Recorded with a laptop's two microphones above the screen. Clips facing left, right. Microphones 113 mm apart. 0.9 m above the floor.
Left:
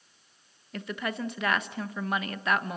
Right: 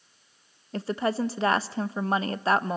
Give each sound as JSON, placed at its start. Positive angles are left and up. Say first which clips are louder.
{"t": 0.7, "sound": "a woman speaking", "louder": "right 7 dB", "side_deg": -30, "distance_m": 0.7}